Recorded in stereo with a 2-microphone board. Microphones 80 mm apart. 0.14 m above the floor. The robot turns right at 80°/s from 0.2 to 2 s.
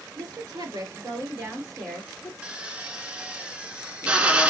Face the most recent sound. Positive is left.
turn(degrees=-15)  # may be behind; listen again after turning